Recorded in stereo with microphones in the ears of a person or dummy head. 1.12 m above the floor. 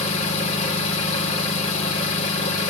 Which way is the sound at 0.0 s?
40° left (ahead or behind).